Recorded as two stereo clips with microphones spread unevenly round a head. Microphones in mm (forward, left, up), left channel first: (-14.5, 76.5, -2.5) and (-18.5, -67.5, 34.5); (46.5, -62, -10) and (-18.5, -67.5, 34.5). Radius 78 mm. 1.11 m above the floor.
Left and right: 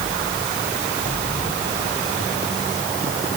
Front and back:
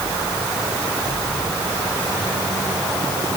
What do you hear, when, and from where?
Only background noise.